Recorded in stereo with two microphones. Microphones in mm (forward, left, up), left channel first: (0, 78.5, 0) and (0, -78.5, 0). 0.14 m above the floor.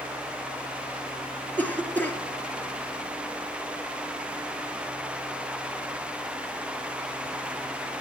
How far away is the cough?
About 1.9 m.